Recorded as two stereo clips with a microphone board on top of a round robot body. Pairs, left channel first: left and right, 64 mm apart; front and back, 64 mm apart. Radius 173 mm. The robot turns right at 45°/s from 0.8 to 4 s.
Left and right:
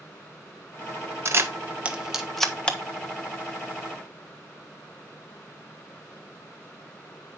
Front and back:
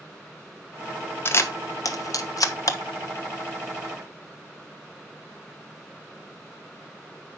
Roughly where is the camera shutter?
Ahead right.